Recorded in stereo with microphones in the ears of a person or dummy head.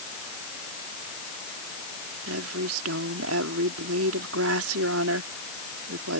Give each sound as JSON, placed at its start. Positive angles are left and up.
{"t": 2.3, "sound": "a woman speaking", "side_deg": -80}